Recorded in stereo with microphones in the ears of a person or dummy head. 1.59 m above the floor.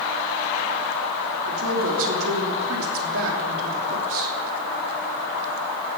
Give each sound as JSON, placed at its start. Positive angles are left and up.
{"t": 1.5, "sound": "a woman speaking", "side_deg": -80, "distance_m": 3.0}